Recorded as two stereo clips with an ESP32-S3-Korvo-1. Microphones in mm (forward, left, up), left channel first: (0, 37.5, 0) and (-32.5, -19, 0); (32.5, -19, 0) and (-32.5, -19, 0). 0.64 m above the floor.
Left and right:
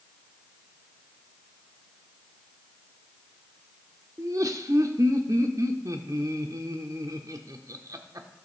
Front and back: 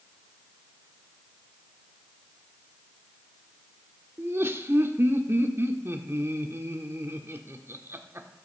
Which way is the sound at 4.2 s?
135° right.